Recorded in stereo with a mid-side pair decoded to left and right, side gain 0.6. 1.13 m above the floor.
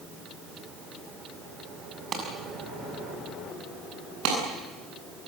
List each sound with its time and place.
2.1 s a clap: 40° right, 7 m
4.2 s a clap: 70° right, 9.5 m